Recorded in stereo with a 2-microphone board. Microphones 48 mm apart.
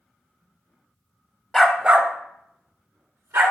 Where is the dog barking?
10° left (ahead or behind), 0.8 m; by 3.5 s 75° right (ahead or behind), 2 m.